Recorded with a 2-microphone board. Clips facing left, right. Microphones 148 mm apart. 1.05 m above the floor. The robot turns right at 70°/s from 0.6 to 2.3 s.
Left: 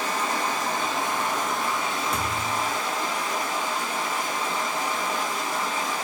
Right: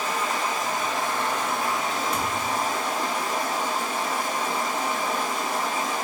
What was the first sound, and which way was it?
Running water, 115° left.